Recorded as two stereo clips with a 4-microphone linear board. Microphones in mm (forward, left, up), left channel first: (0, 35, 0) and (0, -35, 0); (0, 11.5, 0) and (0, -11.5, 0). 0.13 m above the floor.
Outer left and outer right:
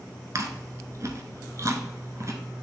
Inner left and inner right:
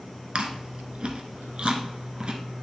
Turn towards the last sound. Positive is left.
turn(degrees=-50)  # may be behind; listen again after turning